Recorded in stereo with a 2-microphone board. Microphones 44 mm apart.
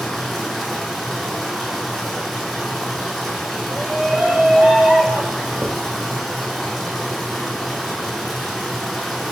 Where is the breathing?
I don't hear breathing.